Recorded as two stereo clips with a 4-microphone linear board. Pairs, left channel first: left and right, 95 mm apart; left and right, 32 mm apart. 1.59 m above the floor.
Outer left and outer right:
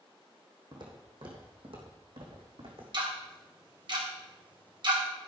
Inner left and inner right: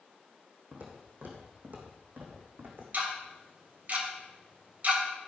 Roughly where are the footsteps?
Right.